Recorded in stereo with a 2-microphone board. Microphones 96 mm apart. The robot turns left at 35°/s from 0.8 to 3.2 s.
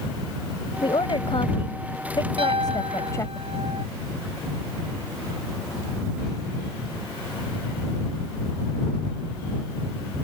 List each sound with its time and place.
0.8 s a woman speaking: 115° left; by 3.4 s 35° left
2.4 s a piano: 70° right (ahead or behind); by 3.9 s 80° right